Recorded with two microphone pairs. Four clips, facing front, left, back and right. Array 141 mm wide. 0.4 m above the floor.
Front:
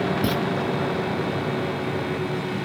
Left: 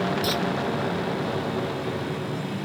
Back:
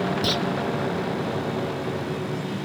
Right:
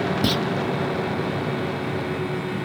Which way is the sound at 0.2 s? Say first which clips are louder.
Right 3 dB, front 2 dB; 80° right.